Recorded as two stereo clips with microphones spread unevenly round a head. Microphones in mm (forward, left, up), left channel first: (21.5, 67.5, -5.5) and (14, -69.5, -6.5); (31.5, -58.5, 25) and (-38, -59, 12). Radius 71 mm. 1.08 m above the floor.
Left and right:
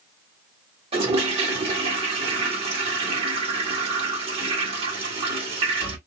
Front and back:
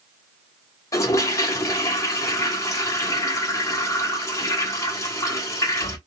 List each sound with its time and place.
0.9 s a toilet flushing: 45° right, 1.0 m